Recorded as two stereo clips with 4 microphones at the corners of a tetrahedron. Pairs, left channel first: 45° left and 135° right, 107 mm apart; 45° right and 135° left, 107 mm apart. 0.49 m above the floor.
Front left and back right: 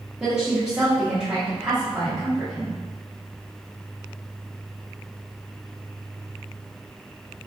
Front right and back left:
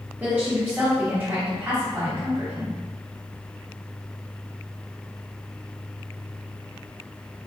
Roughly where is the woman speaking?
Behind left.